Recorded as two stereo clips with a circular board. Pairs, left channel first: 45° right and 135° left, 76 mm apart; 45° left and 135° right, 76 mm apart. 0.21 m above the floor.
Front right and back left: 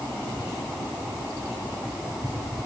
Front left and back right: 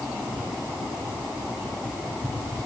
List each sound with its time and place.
Only background noise.